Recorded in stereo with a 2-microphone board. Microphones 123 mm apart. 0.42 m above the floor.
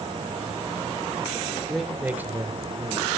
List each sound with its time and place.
1.7 s a man speaking: centre (ahead or behind), 0.9 m; by 3.1 s 30° right (ahead or behind), 1.8 m